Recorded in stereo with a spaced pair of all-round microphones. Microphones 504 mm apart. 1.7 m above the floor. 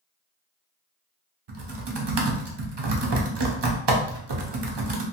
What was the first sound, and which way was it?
Typing on a keyboard, 50° right (ahead or behind).